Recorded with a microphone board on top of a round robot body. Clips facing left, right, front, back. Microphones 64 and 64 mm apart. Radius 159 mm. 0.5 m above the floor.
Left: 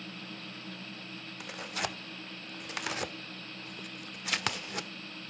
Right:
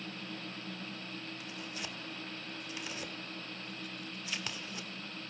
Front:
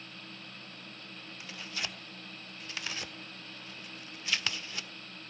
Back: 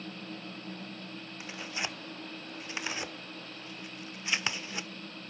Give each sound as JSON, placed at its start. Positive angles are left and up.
{"t": 1.4, "sound": "tearing paper", "azimuth_deg": 110, "distance_m": 1.3}